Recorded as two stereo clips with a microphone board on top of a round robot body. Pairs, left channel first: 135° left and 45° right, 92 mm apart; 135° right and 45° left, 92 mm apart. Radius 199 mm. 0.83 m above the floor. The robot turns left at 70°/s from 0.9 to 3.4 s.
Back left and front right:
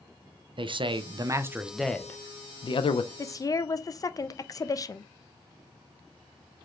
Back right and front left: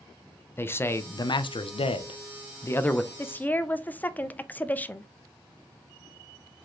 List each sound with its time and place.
0.6 s a man speaking: 70° right, 0.5 m; by 3.1 s 135° left, 0.5 m
3.2 s a woman speaking: 175° left, 0.6 m; by 5.1 s 160° left, 0.6 m